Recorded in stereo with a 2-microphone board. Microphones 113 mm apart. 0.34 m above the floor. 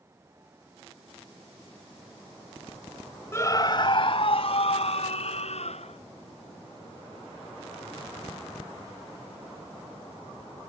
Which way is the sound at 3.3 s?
25° left (ahead or behind).